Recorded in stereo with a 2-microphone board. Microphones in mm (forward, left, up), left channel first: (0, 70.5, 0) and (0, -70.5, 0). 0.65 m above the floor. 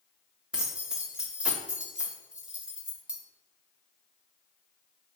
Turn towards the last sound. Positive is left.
turn(degrees=-5)  # may be behind; listen again after turning